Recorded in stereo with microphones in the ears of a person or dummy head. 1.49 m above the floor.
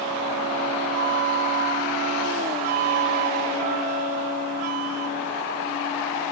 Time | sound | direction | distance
0.9 | a flute | 50° right (ahead or behind) | ?